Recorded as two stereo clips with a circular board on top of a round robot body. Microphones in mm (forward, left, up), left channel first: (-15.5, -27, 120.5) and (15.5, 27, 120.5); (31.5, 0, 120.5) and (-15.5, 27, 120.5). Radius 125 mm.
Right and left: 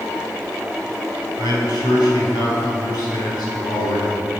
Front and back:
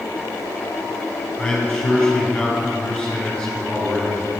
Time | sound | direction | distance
1.4 | a man speaking | 105° right | 4 m